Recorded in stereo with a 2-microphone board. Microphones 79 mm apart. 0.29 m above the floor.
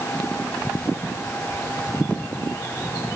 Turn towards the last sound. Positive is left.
No sound to turn to.